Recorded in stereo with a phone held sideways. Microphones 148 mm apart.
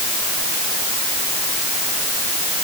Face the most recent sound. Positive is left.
No sound to turn to.